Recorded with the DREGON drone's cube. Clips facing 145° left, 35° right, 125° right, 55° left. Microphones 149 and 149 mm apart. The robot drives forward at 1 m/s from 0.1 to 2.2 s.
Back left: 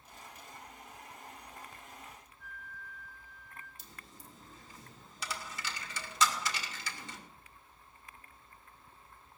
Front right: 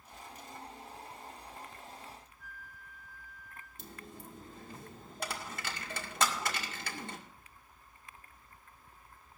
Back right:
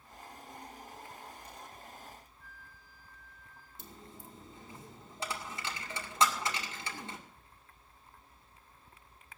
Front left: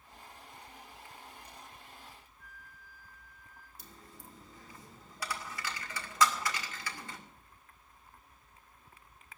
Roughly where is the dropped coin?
Ahead right.